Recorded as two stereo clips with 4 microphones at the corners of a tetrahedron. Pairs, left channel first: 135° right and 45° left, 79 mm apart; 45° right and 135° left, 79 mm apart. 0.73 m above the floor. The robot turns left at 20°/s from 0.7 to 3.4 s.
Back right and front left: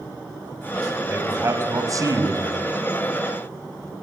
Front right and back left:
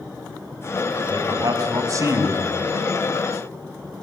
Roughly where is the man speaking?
Left.